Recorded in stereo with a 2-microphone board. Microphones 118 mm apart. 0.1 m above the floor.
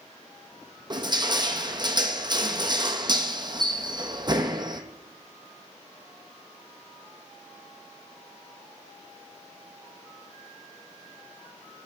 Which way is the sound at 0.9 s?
35° right (ahead or behind).